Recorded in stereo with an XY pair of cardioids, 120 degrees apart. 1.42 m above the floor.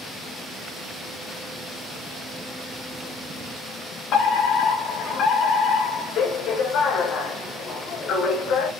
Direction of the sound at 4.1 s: 65° left.